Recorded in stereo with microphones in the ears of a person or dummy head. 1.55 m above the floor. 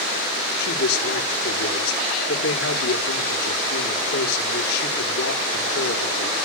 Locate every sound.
0.6 s a man speaking: 75° left (ahead or behind), 4.5 m